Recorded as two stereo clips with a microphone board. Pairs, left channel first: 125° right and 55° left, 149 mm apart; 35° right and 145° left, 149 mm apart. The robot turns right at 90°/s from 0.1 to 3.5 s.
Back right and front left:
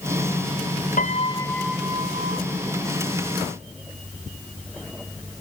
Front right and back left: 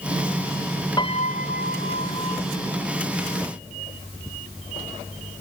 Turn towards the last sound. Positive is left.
turn(degrees=130)